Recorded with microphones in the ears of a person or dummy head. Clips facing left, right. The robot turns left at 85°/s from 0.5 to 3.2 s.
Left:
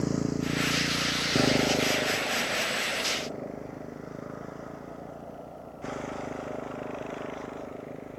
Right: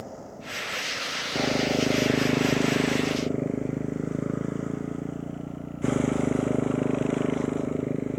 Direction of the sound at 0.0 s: 85° left.